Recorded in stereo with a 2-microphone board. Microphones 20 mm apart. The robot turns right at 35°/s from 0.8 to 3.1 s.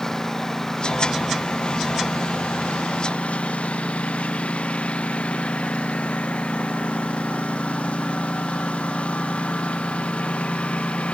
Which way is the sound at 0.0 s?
25° left (ahead or behind).